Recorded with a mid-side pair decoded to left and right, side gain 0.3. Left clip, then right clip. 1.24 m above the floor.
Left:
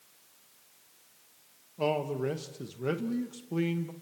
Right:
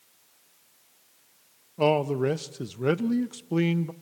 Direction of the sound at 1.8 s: 70° right.